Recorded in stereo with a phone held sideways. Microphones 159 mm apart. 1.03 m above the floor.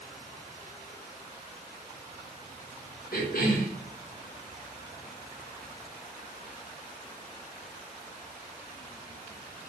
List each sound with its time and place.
3.1 s a cough: 65° left (ahead or behind), 3 m